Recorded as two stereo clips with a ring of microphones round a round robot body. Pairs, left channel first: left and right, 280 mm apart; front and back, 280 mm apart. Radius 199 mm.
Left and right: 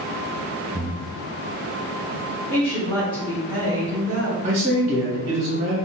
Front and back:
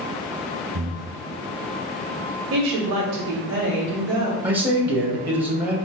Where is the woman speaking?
165° left, 1.2 m.